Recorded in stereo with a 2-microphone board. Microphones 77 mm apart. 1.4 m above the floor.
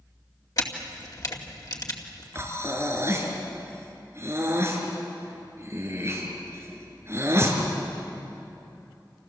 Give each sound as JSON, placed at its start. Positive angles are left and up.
{"t": 0.6, "sound": "a camera shutter", "side_deg": 50, "distance_m": 2.5}
{"t": 2.4, "sound": "breathing", "side_deg": -35, "distance_m": 4.0}